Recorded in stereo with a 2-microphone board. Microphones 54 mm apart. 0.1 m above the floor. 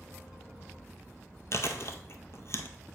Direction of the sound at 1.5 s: 50° left (ahead or behind).